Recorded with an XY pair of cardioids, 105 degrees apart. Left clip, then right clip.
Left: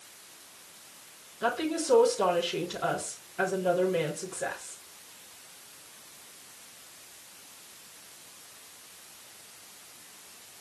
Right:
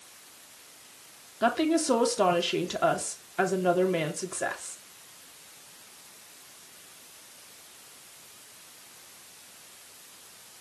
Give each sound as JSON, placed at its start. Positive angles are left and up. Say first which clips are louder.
{"t": 1.4, "sound": "a woman speaking", "louder": "right 4 dB", "azimuth_deg": -55, "distance_m": 3.0}